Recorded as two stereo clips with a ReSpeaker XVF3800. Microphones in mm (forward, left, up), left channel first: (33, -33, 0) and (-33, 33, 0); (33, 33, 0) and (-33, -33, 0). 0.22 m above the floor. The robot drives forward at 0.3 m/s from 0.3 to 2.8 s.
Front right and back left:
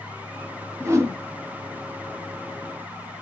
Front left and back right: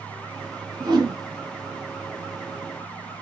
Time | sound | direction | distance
0.8 | a whoosh | 170° right | 0.7 m